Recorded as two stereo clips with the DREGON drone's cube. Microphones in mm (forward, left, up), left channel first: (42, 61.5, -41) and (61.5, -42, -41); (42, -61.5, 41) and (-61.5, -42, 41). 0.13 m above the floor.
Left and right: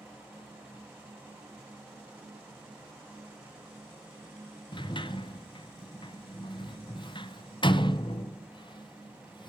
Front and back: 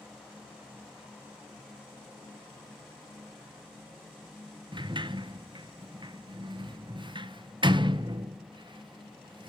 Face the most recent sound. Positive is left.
turn(degrees=135)